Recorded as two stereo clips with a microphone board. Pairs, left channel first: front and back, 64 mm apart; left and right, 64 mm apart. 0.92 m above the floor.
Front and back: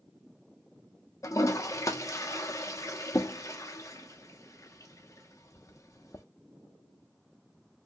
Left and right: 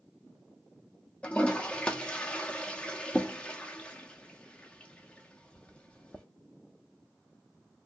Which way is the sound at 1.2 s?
20° left.